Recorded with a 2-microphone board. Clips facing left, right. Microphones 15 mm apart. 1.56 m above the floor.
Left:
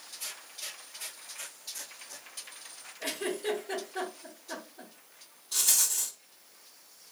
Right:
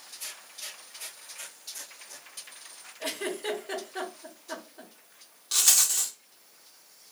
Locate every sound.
3.0 s a giggle: 45° right (ahead or behind), 1.6 m
5.5 s a rattle: 75° right (ahead or behind), 0.8 m